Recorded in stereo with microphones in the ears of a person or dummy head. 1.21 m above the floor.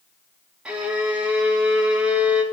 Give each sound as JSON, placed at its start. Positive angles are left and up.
{"t": 0.7, "sound": "a violin", "side_deg": -5, "distance_m": 1.8}